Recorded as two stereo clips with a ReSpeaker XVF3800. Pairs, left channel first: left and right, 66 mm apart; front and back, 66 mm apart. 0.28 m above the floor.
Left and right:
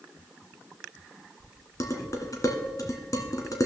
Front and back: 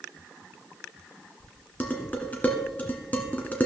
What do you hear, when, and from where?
1.8 s dishes clattering: 65° left, 1.8 m